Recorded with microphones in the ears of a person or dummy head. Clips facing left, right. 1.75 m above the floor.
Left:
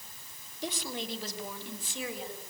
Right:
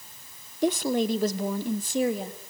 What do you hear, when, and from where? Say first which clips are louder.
0.6 s a woman speaking: right 13 dB; 50° right (ahead or behind), 1.2 m; by 2.5 s 40° right (ahead or behind), 3.5 m